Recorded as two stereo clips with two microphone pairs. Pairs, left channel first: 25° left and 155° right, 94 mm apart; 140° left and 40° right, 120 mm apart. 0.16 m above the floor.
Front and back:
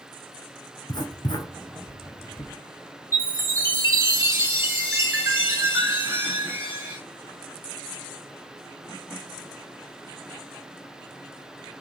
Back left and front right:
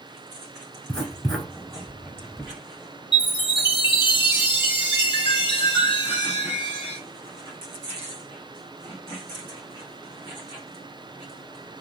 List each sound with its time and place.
0.9 s writing: 55° left, 0.9 m
3.1 s a chime: 165° left, 1.5 m